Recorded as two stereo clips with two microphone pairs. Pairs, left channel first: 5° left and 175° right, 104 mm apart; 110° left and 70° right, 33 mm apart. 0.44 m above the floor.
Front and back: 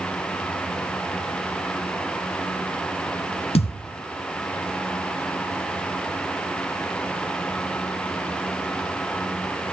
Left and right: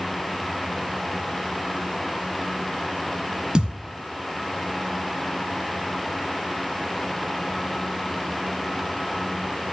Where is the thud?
5° right, 0.7 m.